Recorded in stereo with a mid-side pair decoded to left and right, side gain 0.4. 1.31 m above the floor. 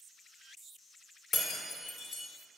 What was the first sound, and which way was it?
Breaking glass, 60° left.